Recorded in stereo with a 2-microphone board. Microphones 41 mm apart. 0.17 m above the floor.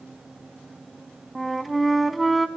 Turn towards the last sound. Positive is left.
turn(degrees=0)  # may be behind; listen again after turning